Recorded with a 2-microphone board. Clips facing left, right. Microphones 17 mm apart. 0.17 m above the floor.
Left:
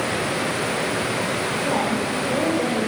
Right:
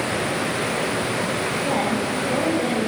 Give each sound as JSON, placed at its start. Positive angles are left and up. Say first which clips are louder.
{"t": 1.6, "sound": "a woman speaking", "louder": "even", "side_deg": 35, "distance_m": 9.5}